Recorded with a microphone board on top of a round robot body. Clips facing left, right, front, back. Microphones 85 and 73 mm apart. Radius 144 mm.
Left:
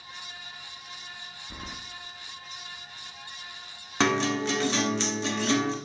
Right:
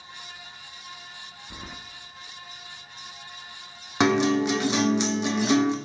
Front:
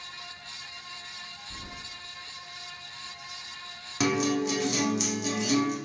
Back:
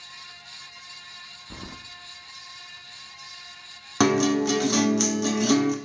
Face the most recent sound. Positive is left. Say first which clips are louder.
# right 4 dB, back 5 dB
turn(degrees=-165)